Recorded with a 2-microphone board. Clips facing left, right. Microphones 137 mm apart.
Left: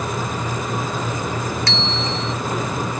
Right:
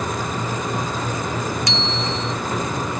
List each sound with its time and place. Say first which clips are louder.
1.7 s a bicycle bell: even; 15° right (ahead or behind)